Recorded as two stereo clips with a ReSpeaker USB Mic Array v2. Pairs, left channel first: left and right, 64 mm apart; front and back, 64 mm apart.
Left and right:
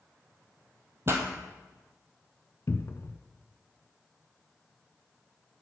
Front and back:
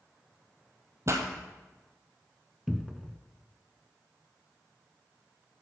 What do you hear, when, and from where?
1.1 s a pop: 140° right, 1.2 m
2.7 s a cupboard door: 95° left, 0.5 m